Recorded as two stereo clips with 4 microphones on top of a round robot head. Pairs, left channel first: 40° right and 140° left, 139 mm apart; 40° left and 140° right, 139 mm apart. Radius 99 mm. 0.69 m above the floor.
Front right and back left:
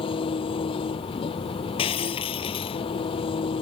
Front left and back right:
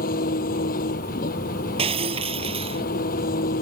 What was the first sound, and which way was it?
An engine running, 15° left.